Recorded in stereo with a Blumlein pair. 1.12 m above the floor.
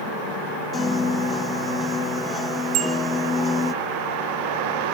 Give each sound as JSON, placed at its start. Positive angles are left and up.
{"t": 0.7, "sound": "a piano", "azimuth_deg": 15, "distance_m": 0.6}
{"t": 2.7, "sound": "a bicycle bell", "azimuth_deg": -35, "distance_m": 3.5}